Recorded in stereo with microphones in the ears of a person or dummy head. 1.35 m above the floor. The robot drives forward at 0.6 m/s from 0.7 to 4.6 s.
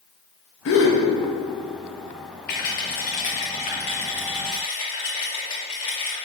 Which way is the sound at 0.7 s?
65° left (ahead or behind).